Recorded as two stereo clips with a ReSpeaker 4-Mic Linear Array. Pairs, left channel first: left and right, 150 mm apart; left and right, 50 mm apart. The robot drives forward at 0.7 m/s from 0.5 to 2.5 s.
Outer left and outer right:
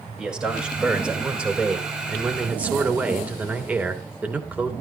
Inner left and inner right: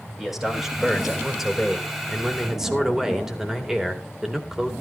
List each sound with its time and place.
0.2 s a man speaking: 5° right (ahead or behind), 3.5 m; by 4.7 s 10° right (ahead or behind), 2 m